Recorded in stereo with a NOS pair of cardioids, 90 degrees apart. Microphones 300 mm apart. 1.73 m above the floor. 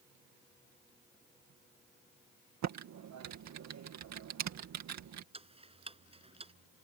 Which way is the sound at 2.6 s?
60° right.